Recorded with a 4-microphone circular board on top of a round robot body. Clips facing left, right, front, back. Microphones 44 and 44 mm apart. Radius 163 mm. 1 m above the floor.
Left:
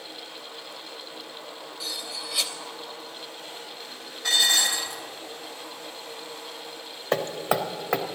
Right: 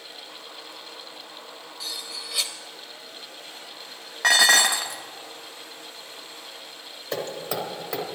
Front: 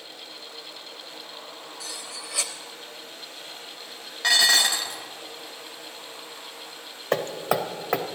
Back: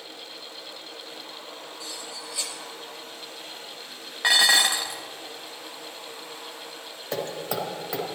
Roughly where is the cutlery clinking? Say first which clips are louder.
Left 1 dB, front 1 dB; ahead.